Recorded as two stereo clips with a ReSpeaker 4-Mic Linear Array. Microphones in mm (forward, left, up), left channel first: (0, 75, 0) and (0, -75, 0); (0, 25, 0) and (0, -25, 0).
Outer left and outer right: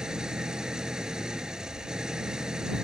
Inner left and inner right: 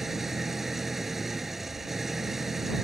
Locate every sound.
0.0 s an engine running: 5° right (ahead or behind)